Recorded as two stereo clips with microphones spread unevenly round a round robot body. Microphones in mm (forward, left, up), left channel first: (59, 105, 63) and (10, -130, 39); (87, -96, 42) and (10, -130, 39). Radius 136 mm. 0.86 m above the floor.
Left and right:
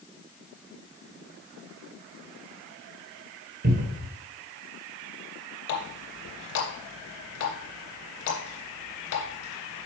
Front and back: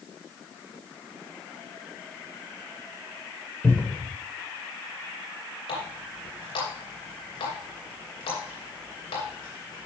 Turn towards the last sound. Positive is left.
turn(degrees=55)